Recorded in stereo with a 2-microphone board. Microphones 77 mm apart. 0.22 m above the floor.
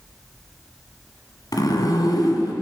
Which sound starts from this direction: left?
A zipper, at 1.5 s.